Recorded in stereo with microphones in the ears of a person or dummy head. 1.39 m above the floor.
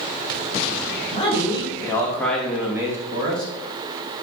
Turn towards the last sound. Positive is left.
turn(degrees=-30)  # may be behind; listen again after turning